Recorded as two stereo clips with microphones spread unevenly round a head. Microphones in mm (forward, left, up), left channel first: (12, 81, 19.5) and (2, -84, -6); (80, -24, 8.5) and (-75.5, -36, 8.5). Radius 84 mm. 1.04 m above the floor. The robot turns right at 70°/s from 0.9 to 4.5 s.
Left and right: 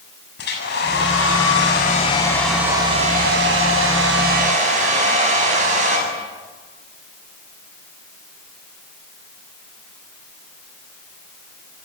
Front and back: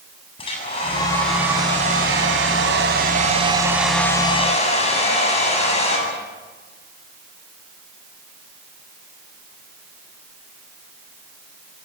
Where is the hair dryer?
65° left, 8 m; by 6.0 s 45° right, 8 m.